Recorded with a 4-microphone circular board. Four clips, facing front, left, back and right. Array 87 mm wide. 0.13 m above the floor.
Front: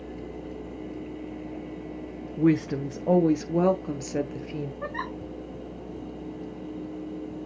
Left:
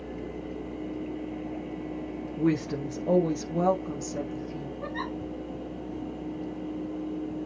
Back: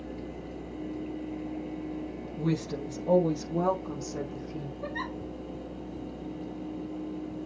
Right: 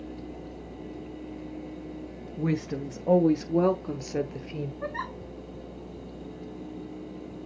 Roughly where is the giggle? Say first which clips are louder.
Left 2 dB, front 2 dB; ahead.